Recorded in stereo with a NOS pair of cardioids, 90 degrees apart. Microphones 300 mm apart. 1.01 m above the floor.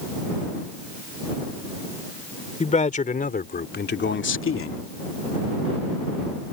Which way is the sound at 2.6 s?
25° left.